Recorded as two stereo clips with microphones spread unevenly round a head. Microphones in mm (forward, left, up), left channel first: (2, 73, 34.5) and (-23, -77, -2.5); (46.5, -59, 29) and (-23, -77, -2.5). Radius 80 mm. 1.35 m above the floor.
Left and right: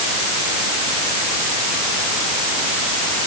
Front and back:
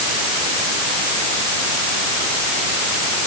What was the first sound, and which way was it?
Only background noise.